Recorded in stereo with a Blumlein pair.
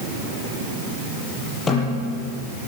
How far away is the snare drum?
About 8 m.